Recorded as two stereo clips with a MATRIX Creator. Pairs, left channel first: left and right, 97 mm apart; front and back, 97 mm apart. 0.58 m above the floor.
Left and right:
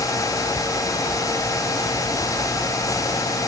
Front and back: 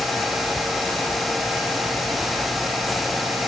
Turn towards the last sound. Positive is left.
No sound to turn to.